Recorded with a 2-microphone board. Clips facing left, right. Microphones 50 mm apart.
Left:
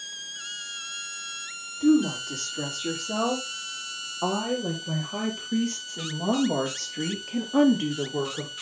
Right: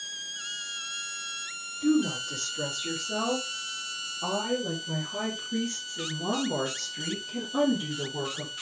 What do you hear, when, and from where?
1.8 s a woman speaking: 55° left (ahead or behind), 6.5 m